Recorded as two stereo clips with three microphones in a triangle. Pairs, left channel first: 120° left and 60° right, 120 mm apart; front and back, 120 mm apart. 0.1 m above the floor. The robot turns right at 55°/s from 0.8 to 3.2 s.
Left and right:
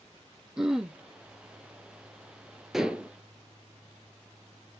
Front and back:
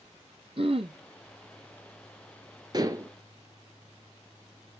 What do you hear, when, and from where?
0.6 s throat clearing: 145° right, 0.9 m; by 1.0 s 135° right, 0.9 m
2.7 s dishes clattering: 145° right, 1.0 m; by 3.1 s 125° right, 1.0 m